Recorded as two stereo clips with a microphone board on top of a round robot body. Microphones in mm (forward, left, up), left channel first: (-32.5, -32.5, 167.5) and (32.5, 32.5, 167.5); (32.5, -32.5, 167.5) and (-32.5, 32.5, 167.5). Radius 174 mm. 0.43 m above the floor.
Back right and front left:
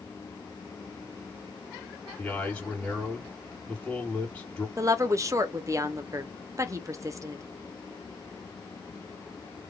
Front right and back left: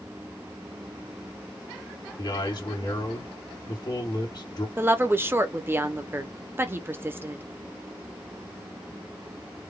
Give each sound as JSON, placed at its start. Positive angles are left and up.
{"t": 2.2, "sound": "a man speaking", "azimuth_deg": -60, "distance_m": 2.0}
{"t": 4.8, "sound": "a woman speaking", "azimuth_deg": 80, "distance_m": 0.9}